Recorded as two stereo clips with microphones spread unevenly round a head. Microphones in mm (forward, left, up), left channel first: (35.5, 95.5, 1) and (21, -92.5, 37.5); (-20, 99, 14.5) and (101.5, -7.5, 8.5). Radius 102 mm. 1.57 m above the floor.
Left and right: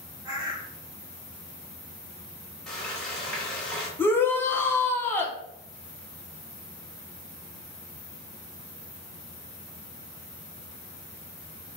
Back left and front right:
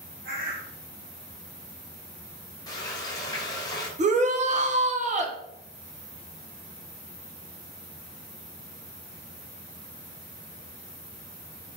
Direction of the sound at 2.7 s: 175° right.